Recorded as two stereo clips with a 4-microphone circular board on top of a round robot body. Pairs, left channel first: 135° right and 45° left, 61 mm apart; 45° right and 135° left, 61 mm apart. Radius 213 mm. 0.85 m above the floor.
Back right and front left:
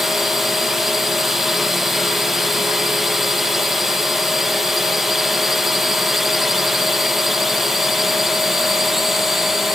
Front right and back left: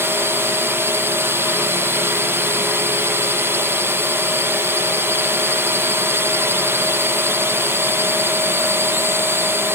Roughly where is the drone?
Behind left.